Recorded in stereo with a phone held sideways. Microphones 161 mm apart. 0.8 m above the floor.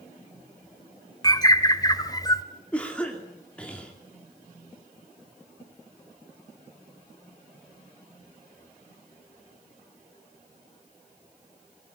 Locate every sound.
1.2 s a bird: 25° left (ahead or behind), 1.2 m
2.7 s a cough: 5° left (ahead or behind), 2.5 m